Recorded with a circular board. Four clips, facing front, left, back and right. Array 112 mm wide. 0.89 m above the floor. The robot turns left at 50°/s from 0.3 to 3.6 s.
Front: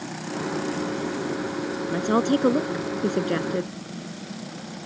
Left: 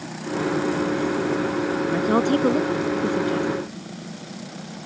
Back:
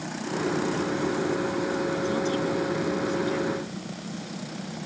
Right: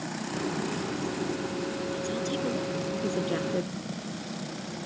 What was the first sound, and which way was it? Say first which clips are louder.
A woman speaking: left 11 dB, front 4 dB; 65° left.